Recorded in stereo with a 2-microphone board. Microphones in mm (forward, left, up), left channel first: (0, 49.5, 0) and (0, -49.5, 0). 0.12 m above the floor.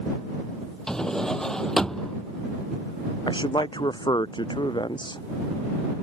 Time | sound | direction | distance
0.9 | a drawer | 5° left (ahead or behind) | ?
3.3 | a man speaking | 45° left (ahead or behind) | ?